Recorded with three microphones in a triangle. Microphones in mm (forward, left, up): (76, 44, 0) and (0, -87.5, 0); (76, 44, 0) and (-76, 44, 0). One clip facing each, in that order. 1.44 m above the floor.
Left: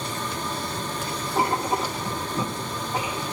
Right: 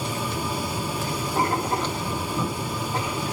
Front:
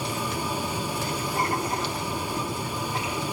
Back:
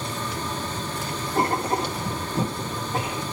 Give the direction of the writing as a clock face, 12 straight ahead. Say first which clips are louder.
Left 1 dB, back 6 dB; 7 o'clock.